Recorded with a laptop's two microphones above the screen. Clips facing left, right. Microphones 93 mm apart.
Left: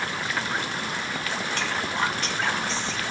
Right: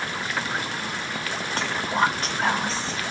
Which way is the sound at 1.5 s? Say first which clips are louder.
Right 5 dB; 40° right (ahead or behind).